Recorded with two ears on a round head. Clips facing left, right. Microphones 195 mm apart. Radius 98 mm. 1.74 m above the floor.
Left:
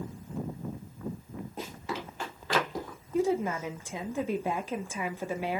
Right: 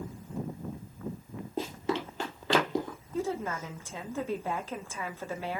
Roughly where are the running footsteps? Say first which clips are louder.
Right 7 dB; right.